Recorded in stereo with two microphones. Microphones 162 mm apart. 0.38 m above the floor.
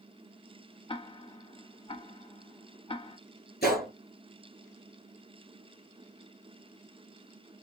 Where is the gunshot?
70° left (ahead or behind), 3 m.